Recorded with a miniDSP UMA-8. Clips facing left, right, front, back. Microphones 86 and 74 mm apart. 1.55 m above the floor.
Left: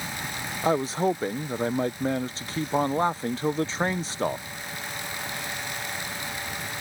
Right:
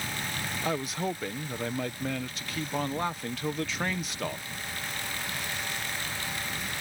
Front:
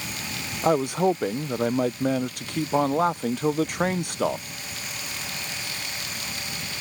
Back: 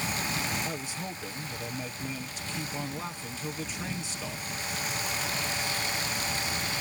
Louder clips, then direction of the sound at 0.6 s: Left 9 dB, front 15 dB; 30° left.